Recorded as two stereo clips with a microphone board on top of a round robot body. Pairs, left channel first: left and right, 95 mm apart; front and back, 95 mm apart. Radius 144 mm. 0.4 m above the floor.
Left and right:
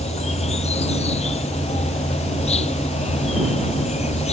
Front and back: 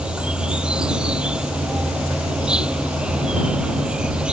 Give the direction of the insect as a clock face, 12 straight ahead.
9 o'clock.